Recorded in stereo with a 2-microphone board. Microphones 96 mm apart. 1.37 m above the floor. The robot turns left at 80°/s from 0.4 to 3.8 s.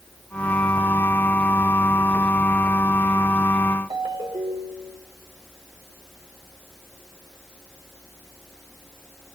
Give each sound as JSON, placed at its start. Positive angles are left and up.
{"t": 3.9, "sound": "a ringtone", "side_deg": -65, "distance_m": 3.0}